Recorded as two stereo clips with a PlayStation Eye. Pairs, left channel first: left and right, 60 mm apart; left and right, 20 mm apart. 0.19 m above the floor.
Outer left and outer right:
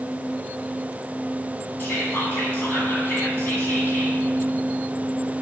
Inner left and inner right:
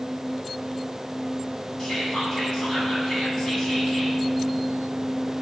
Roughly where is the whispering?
Left.